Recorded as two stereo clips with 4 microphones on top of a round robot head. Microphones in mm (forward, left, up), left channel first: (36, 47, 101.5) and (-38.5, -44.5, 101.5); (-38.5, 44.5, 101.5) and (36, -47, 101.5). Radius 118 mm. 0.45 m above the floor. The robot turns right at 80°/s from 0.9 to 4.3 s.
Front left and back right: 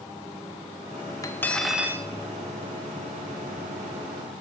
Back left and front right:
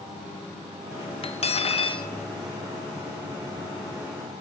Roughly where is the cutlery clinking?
Left.